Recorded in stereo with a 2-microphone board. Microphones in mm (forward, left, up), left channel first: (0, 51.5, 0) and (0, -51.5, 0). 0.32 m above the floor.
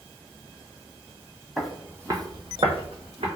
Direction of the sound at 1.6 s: Centre (ahead or behind).